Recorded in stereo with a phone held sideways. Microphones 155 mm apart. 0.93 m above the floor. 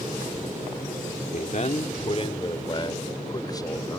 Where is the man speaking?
60° left (ahead or behind); by 4.0 s 25° left (ahead or behind).